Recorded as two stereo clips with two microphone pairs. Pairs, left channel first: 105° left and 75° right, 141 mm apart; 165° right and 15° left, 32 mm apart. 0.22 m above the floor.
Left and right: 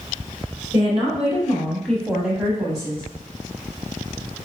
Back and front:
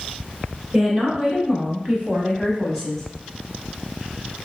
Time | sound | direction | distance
0.7 | a woman speaking | 65° left | 1.6 m